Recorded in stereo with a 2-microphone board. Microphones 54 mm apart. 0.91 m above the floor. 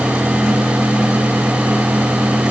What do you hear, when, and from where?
Only background noise.